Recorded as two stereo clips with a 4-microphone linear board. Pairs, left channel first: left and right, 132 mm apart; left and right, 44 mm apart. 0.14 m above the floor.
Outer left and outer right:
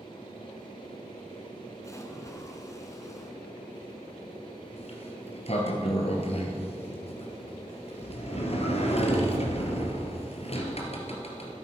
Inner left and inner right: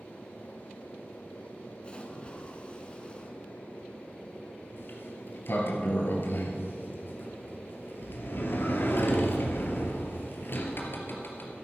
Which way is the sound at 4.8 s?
50° left (ahead or behind).